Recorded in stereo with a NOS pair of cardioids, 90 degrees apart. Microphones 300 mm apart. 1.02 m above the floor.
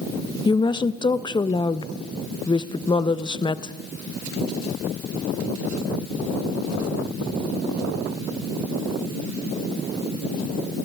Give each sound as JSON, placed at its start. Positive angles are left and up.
{"t": 0.5, "sound": "a woman speaking", "azimuth_deg": 15, "distance_m": 0.6}